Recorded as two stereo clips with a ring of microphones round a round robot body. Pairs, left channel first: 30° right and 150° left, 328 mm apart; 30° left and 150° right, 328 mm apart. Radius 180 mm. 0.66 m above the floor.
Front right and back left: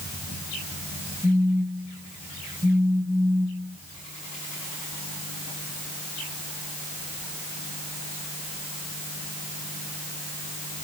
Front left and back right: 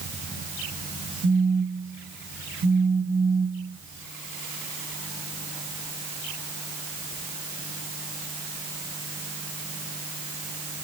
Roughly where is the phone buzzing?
Right.